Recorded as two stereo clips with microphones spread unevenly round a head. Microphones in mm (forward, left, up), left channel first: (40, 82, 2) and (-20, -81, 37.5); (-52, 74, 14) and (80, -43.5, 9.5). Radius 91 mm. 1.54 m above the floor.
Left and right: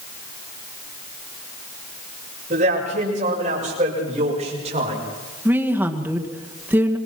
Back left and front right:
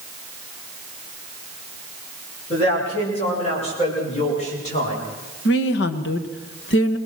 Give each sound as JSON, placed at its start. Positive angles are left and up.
{"t": 2.5, "sound": "a man speaking", "azimuth_deg": -160, "distance_m": 7.5}
{"t": 5.5, "sound": "a woman speaking", "azimuth_deg": 170, "distance_m": 2.0}